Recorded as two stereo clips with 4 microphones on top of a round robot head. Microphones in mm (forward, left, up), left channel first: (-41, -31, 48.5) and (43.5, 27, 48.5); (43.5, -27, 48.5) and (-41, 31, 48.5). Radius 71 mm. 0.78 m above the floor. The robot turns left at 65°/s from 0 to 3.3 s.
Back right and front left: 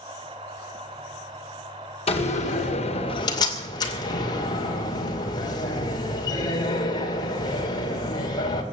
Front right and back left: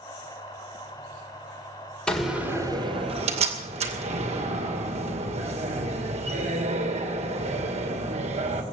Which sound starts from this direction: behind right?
A door slam, at 2.1 s.